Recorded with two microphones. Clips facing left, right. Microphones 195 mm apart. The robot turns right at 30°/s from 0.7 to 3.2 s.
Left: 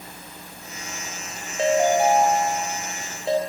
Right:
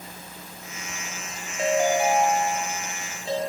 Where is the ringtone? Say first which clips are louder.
Left 3 dB; 35° left, 0.8 m; by 3.4 s 80° left, 0.8 m.